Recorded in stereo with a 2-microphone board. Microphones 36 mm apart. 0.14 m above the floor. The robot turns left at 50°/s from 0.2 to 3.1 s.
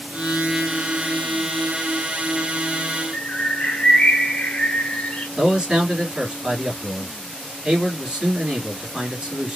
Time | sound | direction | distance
3.1 | a bird | 40° left (ahead or behind) | 1.0 m
5.4 | a man speaking | 25° right (ahead or behind) | 2.5 m